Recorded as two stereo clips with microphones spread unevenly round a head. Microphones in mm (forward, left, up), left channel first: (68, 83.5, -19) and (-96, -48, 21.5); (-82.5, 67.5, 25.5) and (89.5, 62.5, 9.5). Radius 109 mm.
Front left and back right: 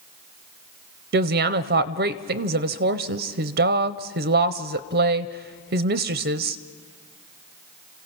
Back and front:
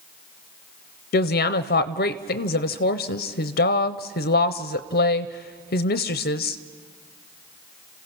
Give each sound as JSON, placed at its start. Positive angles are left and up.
{"t": 1.1, "sound": "a woman speaking", "azimuth_deg": 180, "distance_m": 0.6}